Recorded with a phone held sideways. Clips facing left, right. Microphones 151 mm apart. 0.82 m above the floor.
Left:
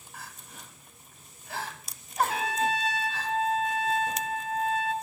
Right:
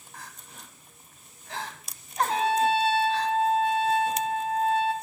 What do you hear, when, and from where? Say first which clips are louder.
0.1 s crying: even; 5° left (ahead or behind), 1.2 m
2.3 s a trumpet: right 5 dB; 30° right (ahead or behind), 0.6 m